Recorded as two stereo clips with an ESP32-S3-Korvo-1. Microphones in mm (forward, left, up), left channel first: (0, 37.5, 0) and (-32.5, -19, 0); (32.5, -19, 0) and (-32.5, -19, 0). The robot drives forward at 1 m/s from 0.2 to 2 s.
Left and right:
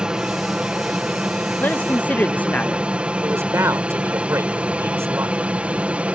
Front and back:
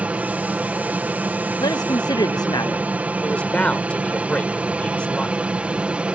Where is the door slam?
No door slam in this recording.